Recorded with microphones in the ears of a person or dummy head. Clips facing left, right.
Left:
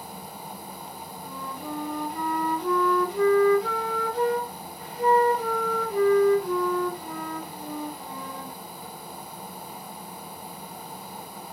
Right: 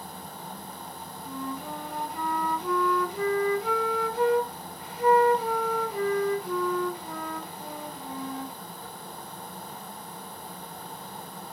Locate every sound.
1.2 s a flute: 50° left (ahead or behind), 1.5 m